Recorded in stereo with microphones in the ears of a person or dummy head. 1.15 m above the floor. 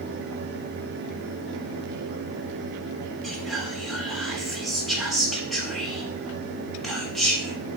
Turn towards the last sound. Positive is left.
turn(degrees=0)  # may be behind; listen again after turning